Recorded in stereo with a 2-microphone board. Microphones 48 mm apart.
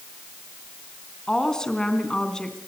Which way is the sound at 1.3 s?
10° left (ahead or behind).